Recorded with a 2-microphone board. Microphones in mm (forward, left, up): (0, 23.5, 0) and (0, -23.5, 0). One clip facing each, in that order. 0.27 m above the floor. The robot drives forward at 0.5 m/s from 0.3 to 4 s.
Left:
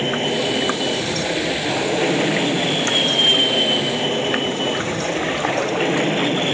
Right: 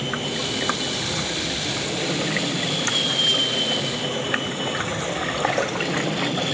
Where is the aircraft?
40° left (ahead or behind).